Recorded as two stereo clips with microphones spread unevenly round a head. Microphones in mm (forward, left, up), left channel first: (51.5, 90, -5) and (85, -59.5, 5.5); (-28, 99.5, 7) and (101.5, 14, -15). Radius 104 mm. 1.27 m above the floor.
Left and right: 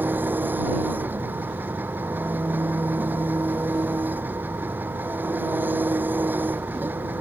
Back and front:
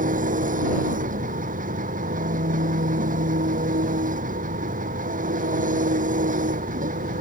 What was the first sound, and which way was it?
An engine running, straight ahead.